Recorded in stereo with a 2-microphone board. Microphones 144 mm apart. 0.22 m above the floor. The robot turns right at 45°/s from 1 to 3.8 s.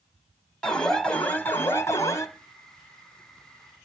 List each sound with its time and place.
0.6 s an alarm: 5° left (ahead or behind), 1.4 m; by 2.3 s 20° left (ahead or behind), 1.4 m